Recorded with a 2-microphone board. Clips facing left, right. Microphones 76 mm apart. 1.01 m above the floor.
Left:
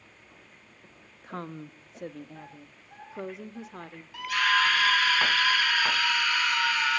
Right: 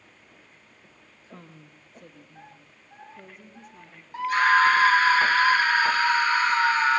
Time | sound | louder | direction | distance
1.2 | a woman speaking | left 10 dB | 55° left (ahead or behind) | 1.2 m
4.1 | a scream | right 6 dB | 35° right (ahead or behind) | 0.9 m